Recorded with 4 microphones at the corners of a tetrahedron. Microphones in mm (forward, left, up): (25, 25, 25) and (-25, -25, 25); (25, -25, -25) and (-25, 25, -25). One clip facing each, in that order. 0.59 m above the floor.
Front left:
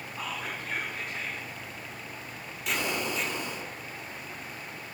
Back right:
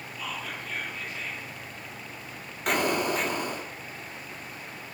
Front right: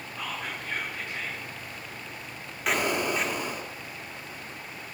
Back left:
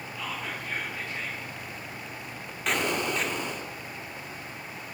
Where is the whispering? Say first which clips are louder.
Even, even; 25° left, 6 m.